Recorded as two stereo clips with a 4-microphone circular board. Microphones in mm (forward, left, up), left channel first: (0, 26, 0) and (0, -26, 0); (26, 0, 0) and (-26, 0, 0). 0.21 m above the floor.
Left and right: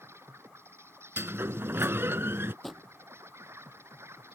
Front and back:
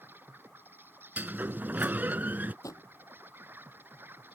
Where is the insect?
130° right.